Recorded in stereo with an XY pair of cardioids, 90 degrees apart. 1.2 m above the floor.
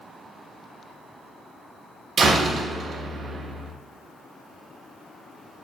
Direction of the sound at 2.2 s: 60° right.